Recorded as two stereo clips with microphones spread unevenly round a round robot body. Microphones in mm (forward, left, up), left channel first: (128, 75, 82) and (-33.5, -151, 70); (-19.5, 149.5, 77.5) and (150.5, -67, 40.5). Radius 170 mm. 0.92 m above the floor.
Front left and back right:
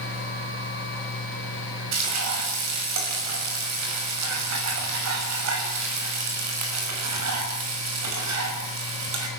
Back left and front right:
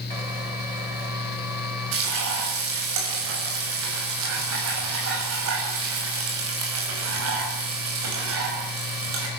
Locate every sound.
1.9 s frying: 100° right, 6 m